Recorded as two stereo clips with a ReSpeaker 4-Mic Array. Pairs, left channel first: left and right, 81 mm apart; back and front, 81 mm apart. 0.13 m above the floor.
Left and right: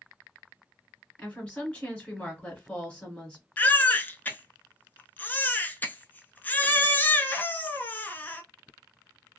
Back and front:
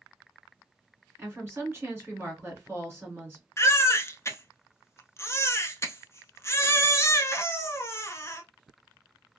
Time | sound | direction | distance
1.2 | a woman speaking | 25° left | 1.8 m
3.6 | a baby crying | 145° left | 0.5 m